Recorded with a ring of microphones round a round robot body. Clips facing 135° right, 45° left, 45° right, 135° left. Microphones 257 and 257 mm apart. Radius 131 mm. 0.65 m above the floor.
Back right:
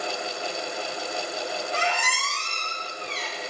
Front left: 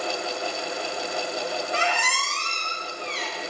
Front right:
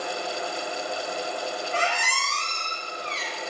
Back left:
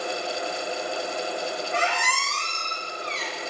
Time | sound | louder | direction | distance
1.7 | a squeak | front left 1 dB, back left 1 dB | 15° left | 0.7 m